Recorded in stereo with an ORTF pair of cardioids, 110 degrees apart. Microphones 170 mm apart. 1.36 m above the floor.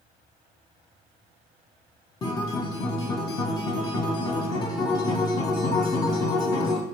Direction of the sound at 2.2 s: 25° left.